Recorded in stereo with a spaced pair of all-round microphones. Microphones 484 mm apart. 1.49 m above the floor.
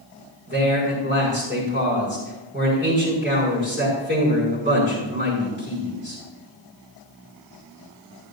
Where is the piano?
I don't hear a piano.